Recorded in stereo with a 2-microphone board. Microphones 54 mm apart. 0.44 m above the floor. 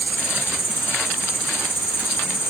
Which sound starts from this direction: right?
An insect, at 0.0 s.